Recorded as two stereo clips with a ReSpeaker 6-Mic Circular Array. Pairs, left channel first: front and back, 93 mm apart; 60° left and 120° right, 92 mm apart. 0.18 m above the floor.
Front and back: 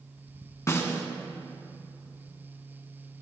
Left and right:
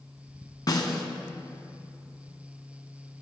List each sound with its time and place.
0.7 s a snare drum: 45° left, 1.0 m